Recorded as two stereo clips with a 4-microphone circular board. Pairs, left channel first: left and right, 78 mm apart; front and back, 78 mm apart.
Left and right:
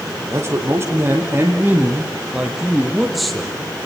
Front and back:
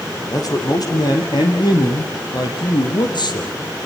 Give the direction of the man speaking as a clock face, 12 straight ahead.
1 o'clock.